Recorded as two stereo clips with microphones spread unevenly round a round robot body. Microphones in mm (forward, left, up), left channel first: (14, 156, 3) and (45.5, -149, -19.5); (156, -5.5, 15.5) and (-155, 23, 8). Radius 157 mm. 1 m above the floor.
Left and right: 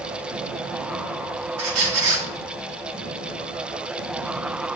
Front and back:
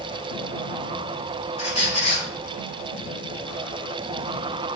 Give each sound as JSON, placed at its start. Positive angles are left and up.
{"t": 1.6, "sound": "a squeak", "azimuth_deg": -75, "distance_m": 1.7}